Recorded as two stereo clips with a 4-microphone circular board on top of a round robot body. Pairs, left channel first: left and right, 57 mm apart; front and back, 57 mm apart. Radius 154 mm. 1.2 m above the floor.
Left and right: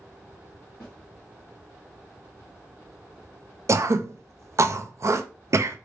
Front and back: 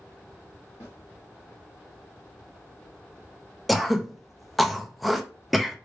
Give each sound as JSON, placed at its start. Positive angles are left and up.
{"t": 0.8, "sound": "a snare drum", "azimuth_deg": 15, "distance_m": 1.4}
{"t": 3.7, "sound": "throat clearing", "azimuth_deg": -90, "distance_m": 0.5}